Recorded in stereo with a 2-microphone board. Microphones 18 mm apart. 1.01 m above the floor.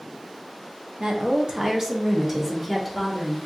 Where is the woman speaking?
55° right (ahead or behind), 1.0 m; by 3.4 s centre (ahead or behind), 2.0 m.